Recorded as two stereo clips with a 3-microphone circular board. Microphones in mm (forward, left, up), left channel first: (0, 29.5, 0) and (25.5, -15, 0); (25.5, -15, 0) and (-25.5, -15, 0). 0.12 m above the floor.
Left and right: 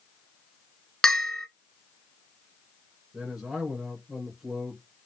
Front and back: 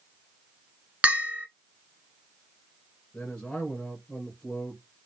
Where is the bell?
170° right, 0.5 m.